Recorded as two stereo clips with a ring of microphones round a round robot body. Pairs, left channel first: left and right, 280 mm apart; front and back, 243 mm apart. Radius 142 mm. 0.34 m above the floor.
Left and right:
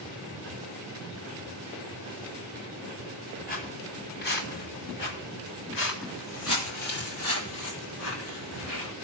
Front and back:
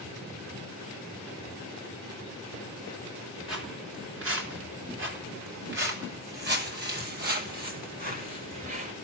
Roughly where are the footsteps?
Behind left.